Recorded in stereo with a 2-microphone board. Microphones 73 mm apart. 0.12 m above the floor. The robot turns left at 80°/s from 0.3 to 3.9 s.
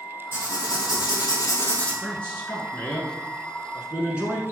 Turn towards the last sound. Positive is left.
turn(degrees=-15)  # may be behind; listen again after turning